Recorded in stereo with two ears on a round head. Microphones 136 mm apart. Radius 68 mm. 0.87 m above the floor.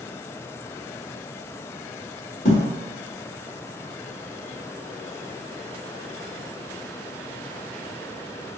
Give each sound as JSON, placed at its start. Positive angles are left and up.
{"t": 2.5, "sound": "a thud", "side_deg": 65, "distance_m": 1.5}